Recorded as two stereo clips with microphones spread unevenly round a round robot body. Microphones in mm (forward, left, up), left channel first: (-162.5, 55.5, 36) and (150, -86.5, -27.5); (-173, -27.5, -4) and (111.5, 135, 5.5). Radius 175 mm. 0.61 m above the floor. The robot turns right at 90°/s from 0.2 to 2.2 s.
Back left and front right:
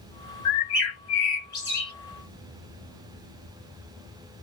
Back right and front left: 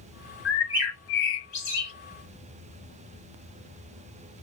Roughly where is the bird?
Behind left.